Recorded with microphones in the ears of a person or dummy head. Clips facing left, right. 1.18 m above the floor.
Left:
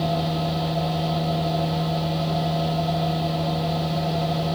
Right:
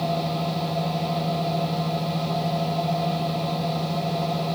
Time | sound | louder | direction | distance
0.0 | a machine running | left 1 dB | 5° left (ahead or behind) | 0.9 m